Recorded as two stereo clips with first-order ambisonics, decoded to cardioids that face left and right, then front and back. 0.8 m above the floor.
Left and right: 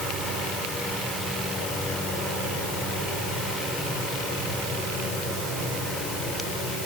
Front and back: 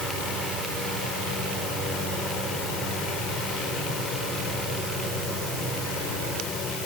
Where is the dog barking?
No dog barking in this recording.